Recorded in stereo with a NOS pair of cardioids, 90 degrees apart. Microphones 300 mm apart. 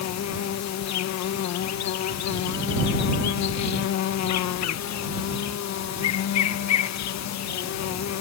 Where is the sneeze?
No sneeze in this recording.